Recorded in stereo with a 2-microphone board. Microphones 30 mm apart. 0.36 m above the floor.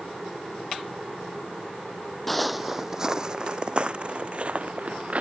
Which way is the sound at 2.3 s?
10° left (ahead or behind).